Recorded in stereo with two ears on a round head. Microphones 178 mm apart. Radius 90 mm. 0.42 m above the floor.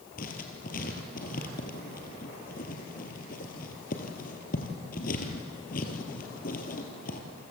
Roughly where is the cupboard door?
I don't hear a cupboard door.